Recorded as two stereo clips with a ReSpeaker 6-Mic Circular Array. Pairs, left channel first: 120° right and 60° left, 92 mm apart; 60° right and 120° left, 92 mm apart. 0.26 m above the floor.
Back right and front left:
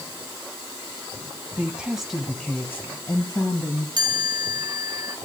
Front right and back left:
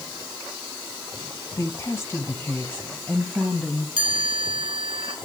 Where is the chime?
100° left, 2.5 m.